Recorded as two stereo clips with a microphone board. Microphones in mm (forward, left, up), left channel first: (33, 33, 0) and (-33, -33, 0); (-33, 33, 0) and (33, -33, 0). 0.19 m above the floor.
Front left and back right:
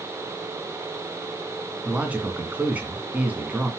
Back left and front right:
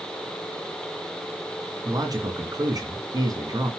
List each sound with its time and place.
1.9 s a man speaking: 65° right, 2 m